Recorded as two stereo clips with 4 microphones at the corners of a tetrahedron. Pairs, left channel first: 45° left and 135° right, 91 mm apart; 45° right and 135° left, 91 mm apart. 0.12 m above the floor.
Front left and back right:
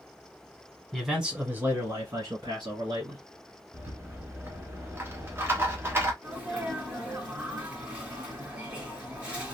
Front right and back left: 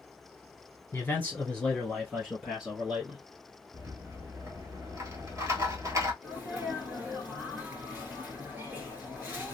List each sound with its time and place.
0.9 s a man speaking: 40° right, 1.2 m; by 3.2 s 145° right, 2 m
3.7 s a rattle: 170° left, 1.1 m
6.2 s a sneeze: 165° left, 1.2 m